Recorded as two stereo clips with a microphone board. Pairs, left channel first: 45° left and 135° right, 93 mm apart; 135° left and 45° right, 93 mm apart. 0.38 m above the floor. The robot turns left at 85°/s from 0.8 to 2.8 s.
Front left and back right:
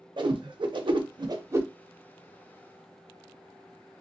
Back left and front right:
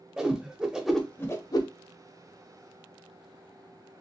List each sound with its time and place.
0.2 s a whoosh: 125° right, 0.5 m; by 1.7 s 160° left, 0.5 m